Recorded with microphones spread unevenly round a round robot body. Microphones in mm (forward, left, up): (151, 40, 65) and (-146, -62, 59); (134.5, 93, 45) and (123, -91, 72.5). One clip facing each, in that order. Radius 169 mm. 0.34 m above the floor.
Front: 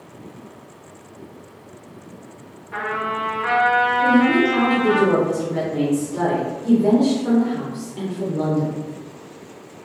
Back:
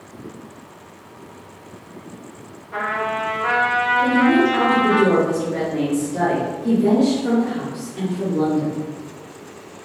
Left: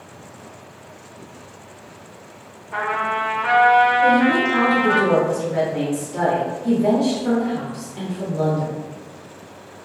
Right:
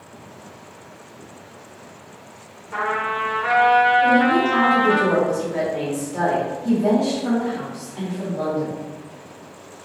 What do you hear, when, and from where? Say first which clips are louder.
2.7 s a trumpet: back 1 dB, left 1 dB; straight ahead, 1.3 m
4.0 s a woman speaking: back 1 dB, even; 90° left, 0.9 m